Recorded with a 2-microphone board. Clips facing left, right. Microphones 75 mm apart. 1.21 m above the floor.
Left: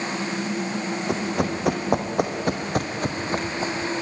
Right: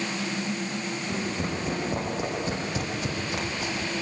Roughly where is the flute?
No flute in this recording.